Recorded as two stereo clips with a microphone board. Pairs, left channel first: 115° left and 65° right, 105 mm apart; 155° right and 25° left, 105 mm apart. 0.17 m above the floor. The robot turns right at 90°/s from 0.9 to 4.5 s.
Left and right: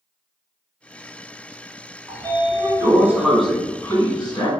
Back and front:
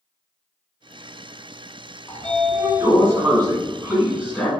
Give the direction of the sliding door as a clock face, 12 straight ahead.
3 o'clock.